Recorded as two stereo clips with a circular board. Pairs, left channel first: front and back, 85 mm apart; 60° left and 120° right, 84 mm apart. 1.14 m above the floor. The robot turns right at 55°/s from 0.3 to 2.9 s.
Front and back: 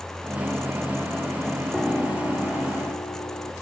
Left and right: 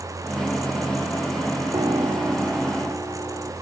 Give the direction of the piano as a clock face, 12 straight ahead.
3 o'clock.